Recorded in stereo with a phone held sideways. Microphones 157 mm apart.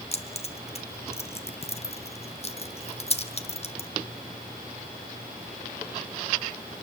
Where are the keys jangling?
40° left (ahead or behind), 1.2 m.